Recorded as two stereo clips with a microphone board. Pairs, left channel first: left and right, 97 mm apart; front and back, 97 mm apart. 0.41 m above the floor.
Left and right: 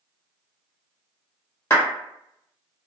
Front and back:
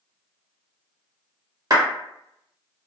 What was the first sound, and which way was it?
A clap, 145° left.